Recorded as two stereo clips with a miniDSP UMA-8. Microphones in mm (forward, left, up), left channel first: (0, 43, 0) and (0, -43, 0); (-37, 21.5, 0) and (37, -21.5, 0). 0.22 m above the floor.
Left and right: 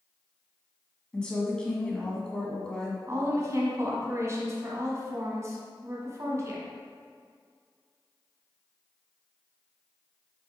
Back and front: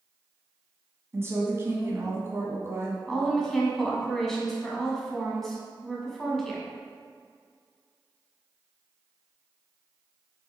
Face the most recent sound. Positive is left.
turn(degrees=-125)